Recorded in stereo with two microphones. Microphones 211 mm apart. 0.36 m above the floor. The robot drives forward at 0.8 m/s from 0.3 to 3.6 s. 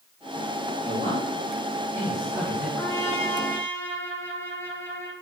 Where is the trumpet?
10° left (ahead or behind), 1.8 m.